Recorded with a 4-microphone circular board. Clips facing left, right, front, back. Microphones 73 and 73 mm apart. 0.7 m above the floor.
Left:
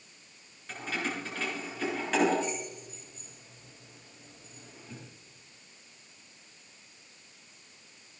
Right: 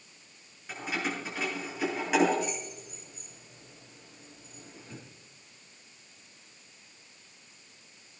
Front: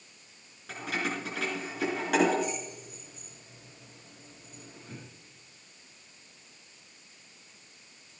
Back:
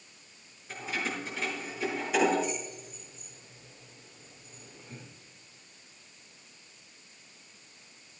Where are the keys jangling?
10° right, 6.5 m.